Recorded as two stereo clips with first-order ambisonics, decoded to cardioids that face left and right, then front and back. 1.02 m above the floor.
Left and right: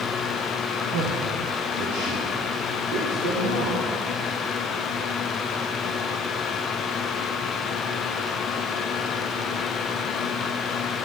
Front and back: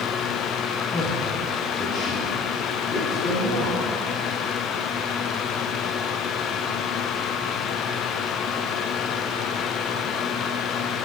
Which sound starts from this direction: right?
A man speaking, at 0.9 s.